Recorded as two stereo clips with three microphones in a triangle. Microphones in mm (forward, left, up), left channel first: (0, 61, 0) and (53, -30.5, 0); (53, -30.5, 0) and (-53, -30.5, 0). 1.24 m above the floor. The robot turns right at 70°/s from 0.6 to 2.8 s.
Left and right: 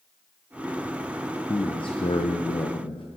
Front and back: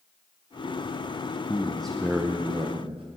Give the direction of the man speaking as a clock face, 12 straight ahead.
10 o'clock.